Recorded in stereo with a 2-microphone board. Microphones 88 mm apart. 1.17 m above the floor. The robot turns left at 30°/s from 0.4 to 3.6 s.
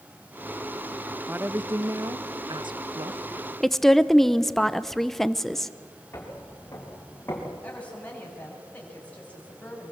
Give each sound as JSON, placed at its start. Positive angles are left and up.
{"t": 1.3, "sound": "a woman speaking", "azimuth_deg": -25, "distance_m": 0.7}
{"t": 3.6, "sound": "a woman speaking", "side_deg": 5, "distance_m": 0.7}
{"t": 6.1, "sound": "footsteps", "side_deg": 30, "distance_m": 6.5}
{"t": 7.6, "sound": "a woman speaking", "side_deg": 15, "distance_m": 6.5}